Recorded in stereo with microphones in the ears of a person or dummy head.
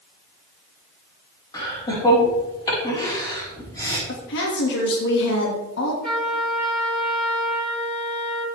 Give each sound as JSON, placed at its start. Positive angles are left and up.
{"t": 1.5, "sound": "laughter", "side_deg": 20, "distance_m": 5.0}
{"t": 4.1, "sound": "a woman speaking", "side_deg": 65, "distance_m": 2.5}
{"t": 6.0, "sound": "a trumpet", "side_deg": 5, "distance_m": 6.5}